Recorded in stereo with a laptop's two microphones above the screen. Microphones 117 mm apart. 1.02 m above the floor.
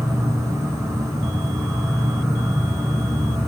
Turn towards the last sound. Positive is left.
turn(degrees=-30)  # may be behind; listen again after turning